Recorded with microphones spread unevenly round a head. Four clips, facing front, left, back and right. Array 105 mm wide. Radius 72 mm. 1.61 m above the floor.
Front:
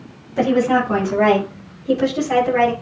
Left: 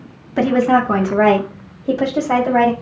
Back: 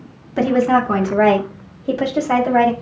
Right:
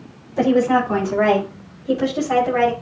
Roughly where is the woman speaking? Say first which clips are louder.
Left 2 dB, back 1 dB; left.